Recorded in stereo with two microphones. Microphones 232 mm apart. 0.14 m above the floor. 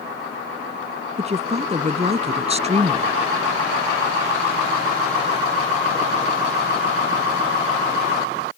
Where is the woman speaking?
30° right (ahead or behind).